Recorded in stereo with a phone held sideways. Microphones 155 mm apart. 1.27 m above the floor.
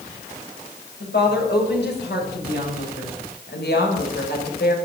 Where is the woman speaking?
85° left, 7 m; by 4.8 s 80° left, 6 m.